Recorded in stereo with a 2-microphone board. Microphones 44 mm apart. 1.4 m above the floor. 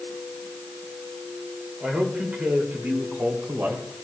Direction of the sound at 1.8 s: 30° right (ahead or behind).